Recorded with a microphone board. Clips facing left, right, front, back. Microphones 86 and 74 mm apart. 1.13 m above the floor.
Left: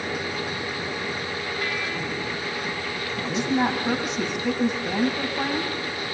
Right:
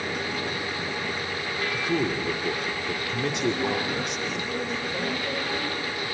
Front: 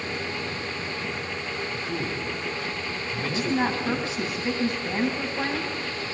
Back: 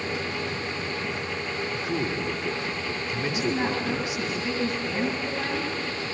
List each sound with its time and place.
1.7 s a man speaking: 110° right, 3 m
3.2 s a woman speaking: 70° left, 9.5 m